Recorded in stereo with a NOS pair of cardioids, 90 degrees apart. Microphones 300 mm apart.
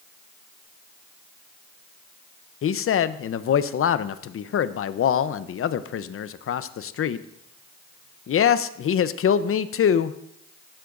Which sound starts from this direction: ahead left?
A man speaking, at 2.6 s.